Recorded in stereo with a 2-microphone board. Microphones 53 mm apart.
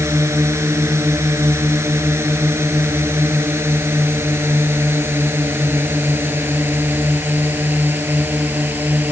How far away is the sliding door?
I don't hear a sliding door.